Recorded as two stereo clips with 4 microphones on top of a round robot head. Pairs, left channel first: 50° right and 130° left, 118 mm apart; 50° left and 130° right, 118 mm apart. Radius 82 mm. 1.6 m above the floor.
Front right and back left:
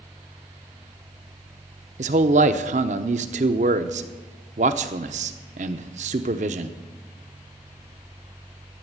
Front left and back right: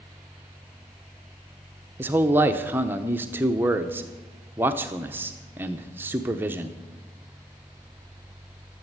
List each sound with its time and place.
2.0 s a man speaking: 155° left, 0.8 m